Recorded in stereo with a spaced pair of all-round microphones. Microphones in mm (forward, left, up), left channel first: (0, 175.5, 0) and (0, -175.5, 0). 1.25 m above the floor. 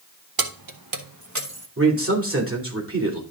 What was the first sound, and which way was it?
Keys jangling, 80° right.